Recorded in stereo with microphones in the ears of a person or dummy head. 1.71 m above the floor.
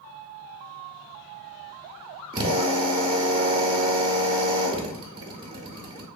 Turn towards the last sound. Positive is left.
turn(degrees=-25)  # may be behind; listen again after turning